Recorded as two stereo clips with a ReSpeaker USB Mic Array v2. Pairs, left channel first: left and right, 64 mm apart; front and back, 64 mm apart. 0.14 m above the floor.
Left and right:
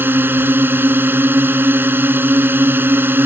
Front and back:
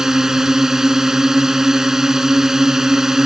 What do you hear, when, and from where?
0.0 s a drone: 105° right